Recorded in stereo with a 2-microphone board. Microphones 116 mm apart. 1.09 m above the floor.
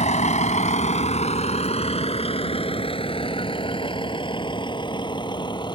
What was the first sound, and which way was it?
A vehicle, 80° left.